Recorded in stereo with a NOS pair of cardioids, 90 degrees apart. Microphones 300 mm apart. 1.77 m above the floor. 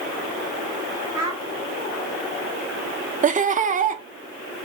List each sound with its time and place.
1.1 s a child speaking: 10° right, 1.8 m
3.2 s laughter: 30° right, 0.5 m